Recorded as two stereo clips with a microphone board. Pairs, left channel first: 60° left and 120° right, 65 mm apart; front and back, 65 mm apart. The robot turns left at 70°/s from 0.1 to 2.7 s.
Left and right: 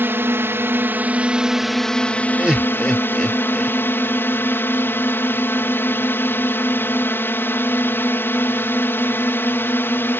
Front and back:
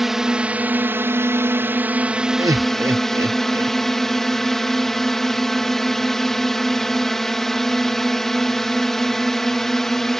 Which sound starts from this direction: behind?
Laughter, at 2.4 s.